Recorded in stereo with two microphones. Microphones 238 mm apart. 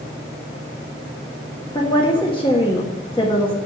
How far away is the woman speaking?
About 1.3 m.